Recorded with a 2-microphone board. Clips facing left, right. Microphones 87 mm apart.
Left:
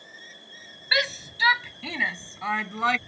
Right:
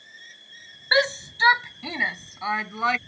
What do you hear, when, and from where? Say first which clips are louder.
0.9 s a shout: right 5 dB; 30° right (ahead or behind); by 3.0 s centre (ahead or behind)